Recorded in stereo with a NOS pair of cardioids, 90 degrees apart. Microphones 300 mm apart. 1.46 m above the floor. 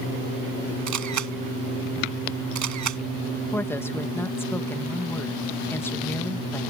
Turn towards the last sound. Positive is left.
turn(degrees=5)